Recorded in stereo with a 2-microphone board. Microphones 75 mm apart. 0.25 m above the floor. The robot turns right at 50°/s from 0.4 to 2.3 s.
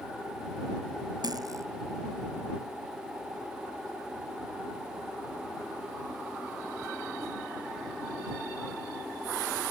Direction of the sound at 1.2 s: 65° right (ahead or behind).